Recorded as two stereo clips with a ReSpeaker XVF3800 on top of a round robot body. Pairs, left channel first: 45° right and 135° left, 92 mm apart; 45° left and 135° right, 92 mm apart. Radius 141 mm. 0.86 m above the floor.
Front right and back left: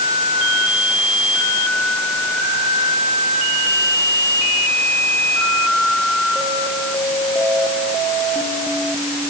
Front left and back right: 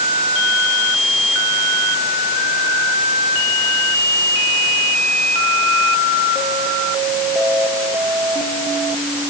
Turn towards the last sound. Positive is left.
No sound to turn to.